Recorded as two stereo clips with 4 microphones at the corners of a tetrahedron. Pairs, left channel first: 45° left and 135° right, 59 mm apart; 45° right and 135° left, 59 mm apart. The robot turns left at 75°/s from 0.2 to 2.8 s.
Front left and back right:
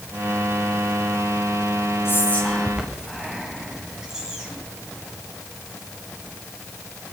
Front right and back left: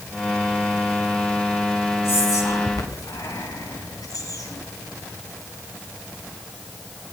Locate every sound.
2.0 s whispering: straight ahead, 9.5 m; by 4.6 s 55° right, 9.5 m